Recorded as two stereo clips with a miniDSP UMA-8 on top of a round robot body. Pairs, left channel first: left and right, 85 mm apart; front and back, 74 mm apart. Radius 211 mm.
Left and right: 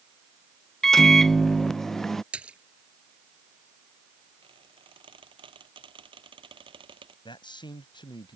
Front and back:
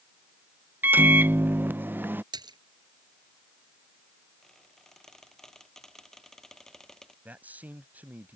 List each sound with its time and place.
0.8 s a microwave: 170° left
2.3 s a splash: 165° right
4.4 s a squeak: 85° right
7.2 s a man speaking: 110° left